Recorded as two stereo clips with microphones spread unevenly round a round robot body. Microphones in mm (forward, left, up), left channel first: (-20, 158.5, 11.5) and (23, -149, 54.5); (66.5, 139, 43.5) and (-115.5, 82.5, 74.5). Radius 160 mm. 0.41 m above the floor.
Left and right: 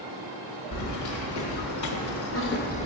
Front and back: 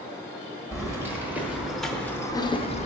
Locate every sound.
0.7 s keys jangling: 120° left, 1.2 m; by 2.9 s 40° left, 0.6 m